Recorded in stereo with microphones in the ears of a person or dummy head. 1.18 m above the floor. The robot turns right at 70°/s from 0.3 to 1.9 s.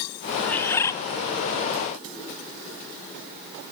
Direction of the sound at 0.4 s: 10° left (ahead or behind).